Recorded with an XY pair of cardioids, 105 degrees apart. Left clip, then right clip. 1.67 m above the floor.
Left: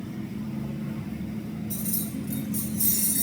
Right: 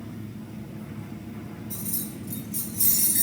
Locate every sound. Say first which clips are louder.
1.7 s keys jangling: left 2 dB; 20° left, 1.9 m; by 3.2 s 40° right, 2.5 m